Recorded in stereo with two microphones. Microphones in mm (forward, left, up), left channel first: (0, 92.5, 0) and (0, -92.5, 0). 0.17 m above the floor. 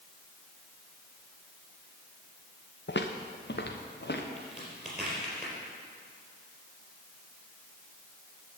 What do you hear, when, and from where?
2.9 s footsteps: 75° left (ahead or behind), 1.1 m; by 4.3 s 70° left (ahead or behind), 2 m
4.4 s a crack: 5° right (ahead or behind), 4 m